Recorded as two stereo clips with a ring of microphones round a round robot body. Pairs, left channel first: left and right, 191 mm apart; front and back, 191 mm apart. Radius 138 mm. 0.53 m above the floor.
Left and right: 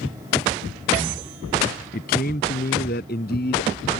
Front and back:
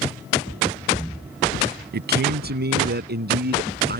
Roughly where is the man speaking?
Behind left.